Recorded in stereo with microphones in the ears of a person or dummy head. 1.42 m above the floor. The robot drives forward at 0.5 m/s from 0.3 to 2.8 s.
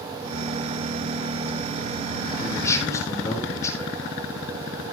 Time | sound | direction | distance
2.4 | a man speaking | 15° left (ahead or behind) | 5 m